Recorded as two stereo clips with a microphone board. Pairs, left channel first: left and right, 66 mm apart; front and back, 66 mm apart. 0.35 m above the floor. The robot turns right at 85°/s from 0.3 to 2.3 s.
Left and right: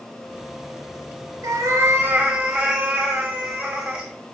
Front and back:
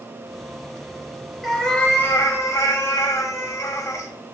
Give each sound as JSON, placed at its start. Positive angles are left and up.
{"t": 1.4, "sound": "a cat meowing", "azimuth_deg": -90, "distance_m": 0.7}